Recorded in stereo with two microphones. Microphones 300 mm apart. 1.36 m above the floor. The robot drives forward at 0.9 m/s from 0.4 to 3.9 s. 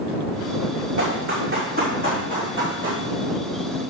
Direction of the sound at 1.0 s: 45° right (ahead or behind).